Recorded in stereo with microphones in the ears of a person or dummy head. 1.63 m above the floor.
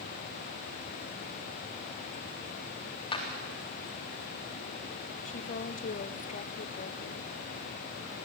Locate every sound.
3.1 s a clap: 30° left (ahead or behind), 3.5 m
5.2 s a woman speaking: 40° left (ahead or behind), 0.8 m